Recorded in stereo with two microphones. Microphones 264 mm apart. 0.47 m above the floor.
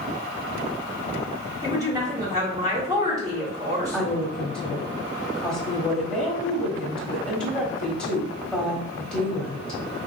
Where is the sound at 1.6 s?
15° right (ahead or behind), 1.1 m.